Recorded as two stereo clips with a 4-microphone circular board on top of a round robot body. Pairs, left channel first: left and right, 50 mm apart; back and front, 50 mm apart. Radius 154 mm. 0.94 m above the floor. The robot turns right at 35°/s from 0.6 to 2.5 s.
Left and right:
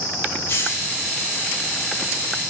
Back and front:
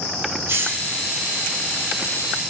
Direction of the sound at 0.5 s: 45° left.